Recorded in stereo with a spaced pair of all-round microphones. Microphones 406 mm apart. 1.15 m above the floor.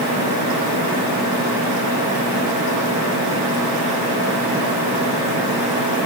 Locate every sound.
Only background noise.